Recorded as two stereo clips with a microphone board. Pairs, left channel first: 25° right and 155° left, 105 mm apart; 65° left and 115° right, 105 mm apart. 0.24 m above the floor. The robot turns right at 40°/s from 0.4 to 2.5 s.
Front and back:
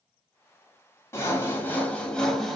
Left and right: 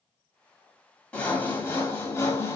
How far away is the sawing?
About 1.1 m.